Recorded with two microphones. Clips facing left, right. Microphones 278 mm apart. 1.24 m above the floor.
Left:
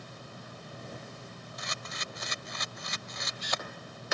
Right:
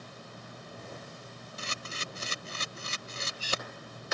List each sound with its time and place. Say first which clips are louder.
1.6 s a camera shutter: right 2 dB; 35° right (ahead or behind)